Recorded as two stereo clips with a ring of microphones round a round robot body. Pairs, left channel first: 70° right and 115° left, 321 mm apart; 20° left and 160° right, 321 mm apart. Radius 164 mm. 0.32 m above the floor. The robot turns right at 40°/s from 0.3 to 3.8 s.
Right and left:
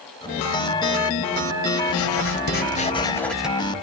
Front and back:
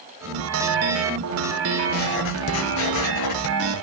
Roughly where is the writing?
Ahead right.